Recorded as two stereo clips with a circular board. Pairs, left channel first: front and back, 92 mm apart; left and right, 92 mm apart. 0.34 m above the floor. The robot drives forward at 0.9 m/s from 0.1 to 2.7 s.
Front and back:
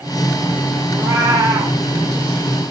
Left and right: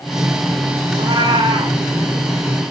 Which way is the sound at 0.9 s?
125° right.